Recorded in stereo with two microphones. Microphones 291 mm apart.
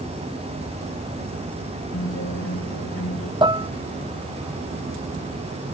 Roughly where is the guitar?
Left.